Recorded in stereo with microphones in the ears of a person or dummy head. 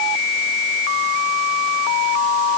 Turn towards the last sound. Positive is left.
No sound to turn to.